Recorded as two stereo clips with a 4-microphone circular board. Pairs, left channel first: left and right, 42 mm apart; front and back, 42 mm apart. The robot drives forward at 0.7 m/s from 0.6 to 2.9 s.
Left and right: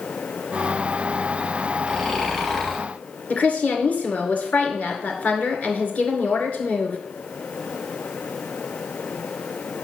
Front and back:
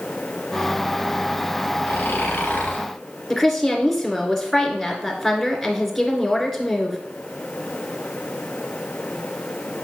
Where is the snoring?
10° left, 2 m; by 2.9 s 15° left, 1.5 m.